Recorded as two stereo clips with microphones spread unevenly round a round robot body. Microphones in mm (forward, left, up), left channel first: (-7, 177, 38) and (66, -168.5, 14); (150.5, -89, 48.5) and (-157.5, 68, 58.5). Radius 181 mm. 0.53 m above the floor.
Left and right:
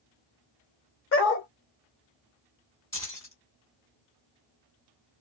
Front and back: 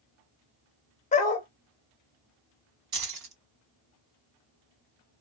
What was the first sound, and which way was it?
A dog barking, 45° left.